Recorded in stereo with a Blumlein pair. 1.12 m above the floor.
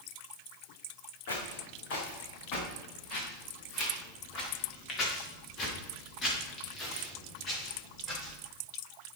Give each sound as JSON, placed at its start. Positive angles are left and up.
{"t": 1.3, "sound": "footsteps", "azimuth_deg": 55, "distance_m": 4.0}